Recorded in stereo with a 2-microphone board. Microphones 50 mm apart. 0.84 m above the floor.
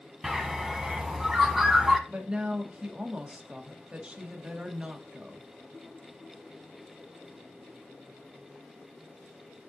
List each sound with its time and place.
0.2 s a bird: 10° right (ahead or behind), 1.2 m
2.1 s a woman speaking: 20° right (ahead or behind), 1.6 m